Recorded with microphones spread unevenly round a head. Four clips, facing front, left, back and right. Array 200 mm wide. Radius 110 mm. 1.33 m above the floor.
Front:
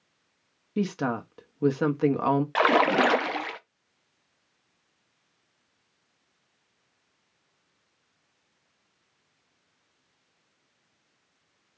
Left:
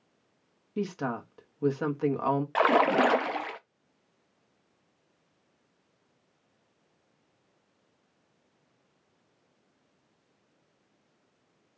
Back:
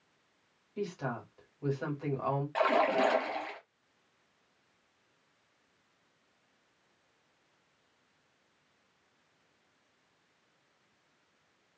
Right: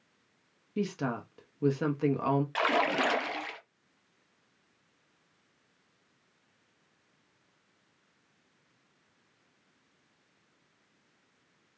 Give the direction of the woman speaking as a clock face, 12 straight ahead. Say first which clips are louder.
Left 1 dB, front 9 dB; 12 o'clock.